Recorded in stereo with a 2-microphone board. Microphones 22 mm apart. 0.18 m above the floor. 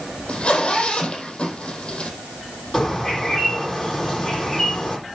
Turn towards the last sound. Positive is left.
turn(degrees=20)  # may be behind; listen again after turning